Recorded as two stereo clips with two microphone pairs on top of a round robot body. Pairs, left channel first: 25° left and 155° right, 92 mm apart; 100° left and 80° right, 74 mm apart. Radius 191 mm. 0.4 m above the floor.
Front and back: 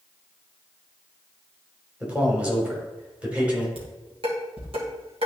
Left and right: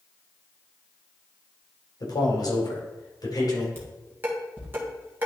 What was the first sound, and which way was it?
A man speaking, 125° left.